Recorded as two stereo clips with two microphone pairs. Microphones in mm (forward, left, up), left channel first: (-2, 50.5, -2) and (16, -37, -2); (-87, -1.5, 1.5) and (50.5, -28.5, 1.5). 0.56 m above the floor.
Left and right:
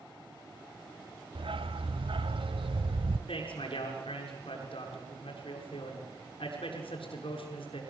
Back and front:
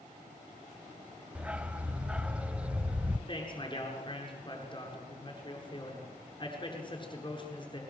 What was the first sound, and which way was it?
A dog barking, 95° right.